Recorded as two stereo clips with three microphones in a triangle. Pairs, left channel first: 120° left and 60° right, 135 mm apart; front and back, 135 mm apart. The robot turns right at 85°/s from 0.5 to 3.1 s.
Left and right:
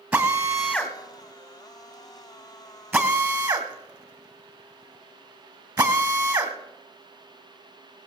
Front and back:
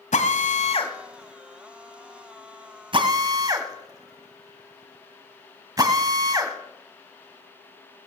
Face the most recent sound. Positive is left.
turn(degrees=-115)